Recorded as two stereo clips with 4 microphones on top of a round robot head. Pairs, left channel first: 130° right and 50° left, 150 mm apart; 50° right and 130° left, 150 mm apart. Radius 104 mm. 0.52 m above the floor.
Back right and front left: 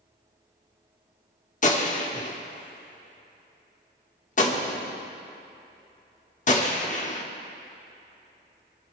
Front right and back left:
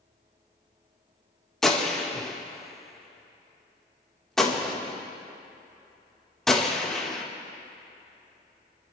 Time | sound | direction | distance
1.6 | a gunshot | 135° right | 1.6 m